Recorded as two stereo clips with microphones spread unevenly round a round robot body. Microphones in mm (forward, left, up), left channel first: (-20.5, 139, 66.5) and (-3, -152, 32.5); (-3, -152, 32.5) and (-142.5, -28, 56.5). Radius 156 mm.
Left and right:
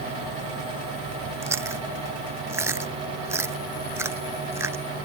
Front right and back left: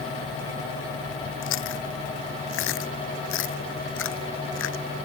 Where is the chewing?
5° right.